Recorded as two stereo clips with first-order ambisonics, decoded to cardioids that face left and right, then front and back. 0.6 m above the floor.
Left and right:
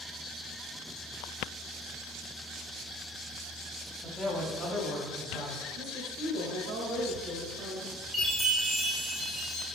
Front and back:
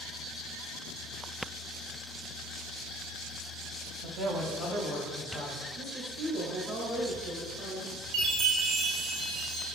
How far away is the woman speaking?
About 2.0 m.